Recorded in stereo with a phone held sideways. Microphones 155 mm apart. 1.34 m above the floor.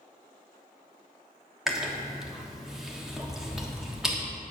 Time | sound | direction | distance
1.7 | chewing | 5° right (ahead or behind) | 1.3 m